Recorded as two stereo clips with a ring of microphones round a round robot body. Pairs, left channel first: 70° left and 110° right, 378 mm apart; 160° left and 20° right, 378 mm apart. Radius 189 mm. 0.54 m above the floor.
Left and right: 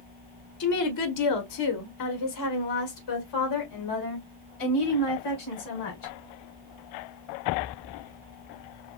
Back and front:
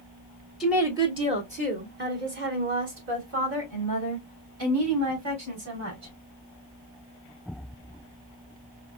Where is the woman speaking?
65° left, 0.9 m; by 6.1 s 25° left, 3.5 m.